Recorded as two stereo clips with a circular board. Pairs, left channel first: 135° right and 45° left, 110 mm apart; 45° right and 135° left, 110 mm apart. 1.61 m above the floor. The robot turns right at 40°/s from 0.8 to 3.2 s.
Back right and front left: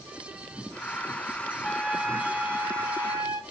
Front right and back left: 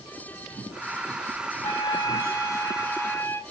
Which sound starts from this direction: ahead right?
A trumpet, at 1.6 s.